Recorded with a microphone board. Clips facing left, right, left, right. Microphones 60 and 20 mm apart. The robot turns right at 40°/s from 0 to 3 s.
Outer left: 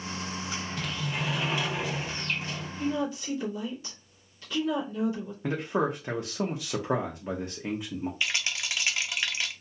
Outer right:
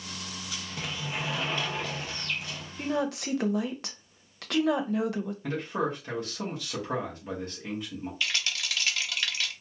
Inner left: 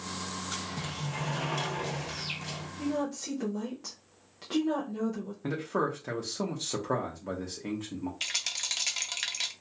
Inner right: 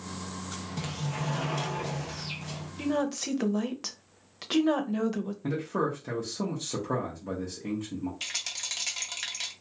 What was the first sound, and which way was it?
A sliding door, 25° right.